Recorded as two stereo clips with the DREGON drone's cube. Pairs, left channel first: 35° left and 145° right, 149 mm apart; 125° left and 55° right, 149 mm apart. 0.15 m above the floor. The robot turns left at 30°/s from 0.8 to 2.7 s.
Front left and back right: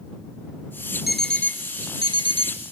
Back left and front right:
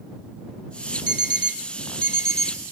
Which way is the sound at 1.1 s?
125° left.